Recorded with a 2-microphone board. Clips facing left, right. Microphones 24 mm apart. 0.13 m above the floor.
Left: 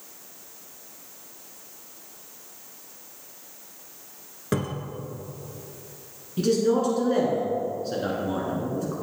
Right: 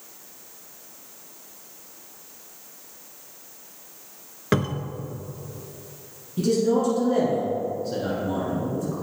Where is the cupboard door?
35° right (ahead or behind), 0.7 m.